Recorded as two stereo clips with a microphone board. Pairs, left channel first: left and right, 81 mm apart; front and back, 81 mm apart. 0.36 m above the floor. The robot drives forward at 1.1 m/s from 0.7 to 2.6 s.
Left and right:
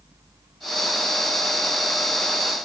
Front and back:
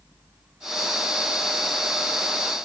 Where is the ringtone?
I don't hear a ringtone.